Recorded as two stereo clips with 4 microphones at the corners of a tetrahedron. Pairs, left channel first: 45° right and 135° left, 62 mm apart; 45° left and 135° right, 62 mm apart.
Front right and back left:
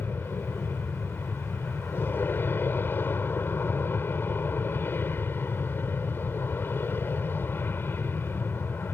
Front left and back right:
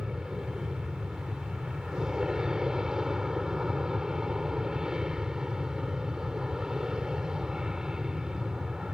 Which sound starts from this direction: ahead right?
An aircraft, at 0.0 s.